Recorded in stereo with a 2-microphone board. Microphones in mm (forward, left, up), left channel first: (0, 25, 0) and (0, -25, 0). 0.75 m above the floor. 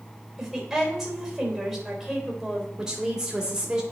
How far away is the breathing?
No breathing in this recording.